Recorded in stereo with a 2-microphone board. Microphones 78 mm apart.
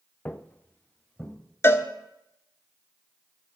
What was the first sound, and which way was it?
Footsteps, 20° left (ahead or behind).